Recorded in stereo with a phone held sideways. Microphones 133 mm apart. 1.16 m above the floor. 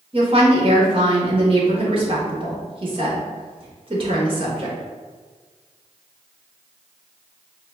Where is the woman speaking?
45° right (ahead or behind), 1.1 m.